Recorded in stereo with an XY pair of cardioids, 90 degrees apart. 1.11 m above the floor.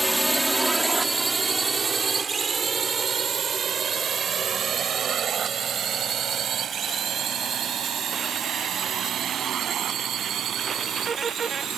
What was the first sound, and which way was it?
A drone, 10° right.